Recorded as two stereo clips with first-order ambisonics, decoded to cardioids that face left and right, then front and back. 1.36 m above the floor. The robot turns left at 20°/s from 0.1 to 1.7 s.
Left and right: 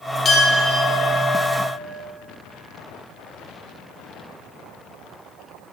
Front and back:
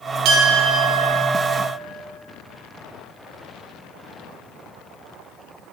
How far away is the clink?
About 1.3 m.